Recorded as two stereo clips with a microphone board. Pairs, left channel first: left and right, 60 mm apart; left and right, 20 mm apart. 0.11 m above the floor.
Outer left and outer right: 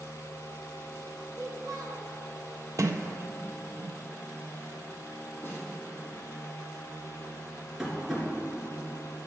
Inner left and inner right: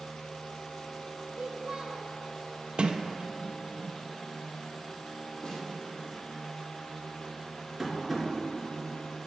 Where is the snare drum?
35° left (ahead or behind), 2.5 m.